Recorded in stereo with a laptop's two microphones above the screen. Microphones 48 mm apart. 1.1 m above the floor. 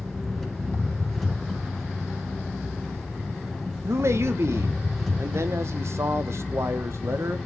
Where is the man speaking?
65° right (ahead or behind), 0.7 m.